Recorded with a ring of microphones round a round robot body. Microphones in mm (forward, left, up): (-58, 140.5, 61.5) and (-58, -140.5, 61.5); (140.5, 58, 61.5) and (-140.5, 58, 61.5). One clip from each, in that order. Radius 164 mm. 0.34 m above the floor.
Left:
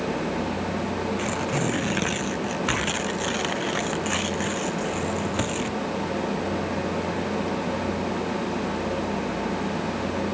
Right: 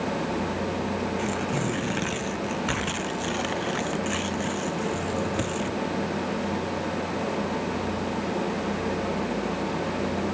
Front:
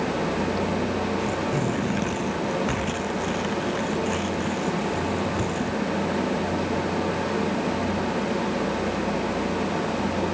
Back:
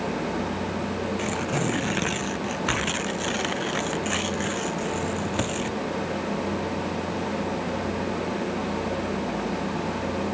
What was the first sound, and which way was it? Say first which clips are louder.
Tearing paper: left 2 dB, front 1 dB; 155° left.